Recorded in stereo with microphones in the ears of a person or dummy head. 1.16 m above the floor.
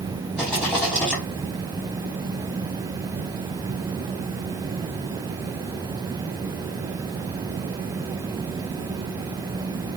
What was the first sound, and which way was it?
A rattle, centre (ahead or behind).